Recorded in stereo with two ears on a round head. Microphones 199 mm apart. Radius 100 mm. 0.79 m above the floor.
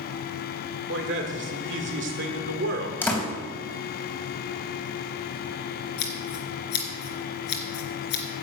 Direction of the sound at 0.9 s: 55° right (ahead or behind).